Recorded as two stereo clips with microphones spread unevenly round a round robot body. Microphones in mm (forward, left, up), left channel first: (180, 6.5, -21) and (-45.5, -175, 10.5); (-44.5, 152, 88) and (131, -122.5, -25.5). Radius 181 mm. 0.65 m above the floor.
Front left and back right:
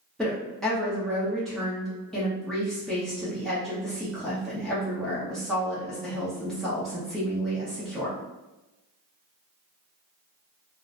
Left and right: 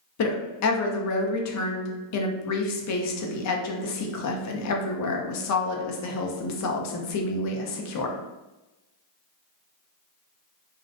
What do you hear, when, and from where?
0.2 s a woman speaking: 110° left, 0.5 m